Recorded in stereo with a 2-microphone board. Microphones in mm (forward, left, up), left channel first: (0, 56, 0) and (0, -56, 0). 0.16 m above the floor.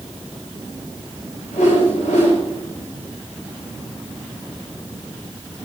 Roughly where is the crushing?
No crushing in this recording.